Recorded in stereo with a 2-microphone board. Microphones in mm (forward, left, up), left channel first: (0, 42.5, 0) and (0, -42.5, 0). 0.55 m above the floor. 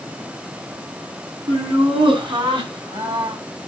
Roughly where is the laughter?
Right.